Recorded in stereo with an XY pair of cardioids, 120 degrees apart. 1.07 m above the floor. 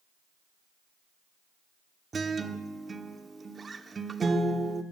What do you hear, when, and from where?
2.1 s a guitar: 25° right, 1.3 m